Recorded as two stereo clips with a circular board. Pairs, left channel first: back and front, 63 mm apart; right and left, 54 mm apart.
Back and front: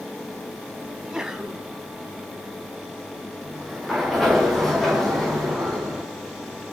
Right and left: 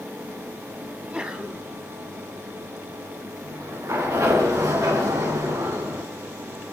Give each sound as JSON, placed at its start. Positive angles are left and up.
{"t": 0.9, "sound": "a sneeze", "azimuth_deg": 70, "distance_m": 1.7}
{"t": 3.4, "sound": "a sliding door", "azimuth_deg": 95, "distance_m": 7.5}